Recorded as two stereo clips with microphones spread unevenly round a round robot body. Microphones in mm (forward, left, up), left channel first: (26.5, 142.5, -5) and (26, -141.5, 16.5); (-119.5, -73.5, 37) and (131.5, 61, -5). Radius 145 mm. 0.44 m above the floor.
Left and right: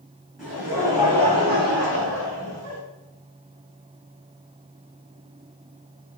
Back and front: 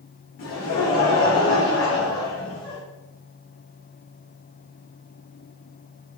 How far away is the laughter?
About 1.6 m.